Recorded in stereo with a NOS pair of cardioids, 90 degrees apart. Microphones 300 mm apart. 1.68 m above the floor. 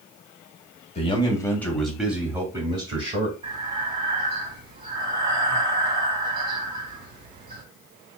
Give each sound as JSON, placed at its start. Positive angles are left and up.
{"t": 0.9, "sound": "a man speaking", "azimuth_deg": 20, "distance_m": 1.3}
{"t": 3.4, "sound": "breathing", "azimuth_deg": -20, "distance_m": 1.9}